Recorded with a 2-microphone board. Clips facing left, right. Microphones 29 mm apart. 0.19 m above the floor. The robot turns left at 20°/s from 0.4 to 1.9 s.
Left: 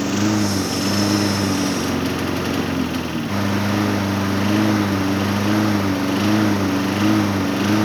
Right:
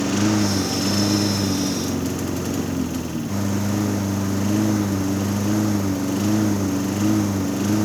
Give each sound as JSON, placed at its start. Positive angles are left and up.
{"t": 0.0, "sound": "a lawn mower", "azimuth_deg": 165}